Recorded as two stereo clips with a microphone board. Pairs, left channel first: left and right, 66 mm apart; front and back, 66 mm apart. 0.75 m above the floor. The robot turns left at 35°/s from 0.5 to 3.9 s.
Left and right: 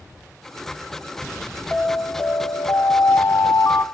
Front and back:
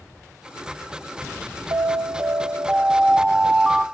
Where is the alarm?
160° left, 1.0 m; by 3.8 s 85° left, 1.0 m.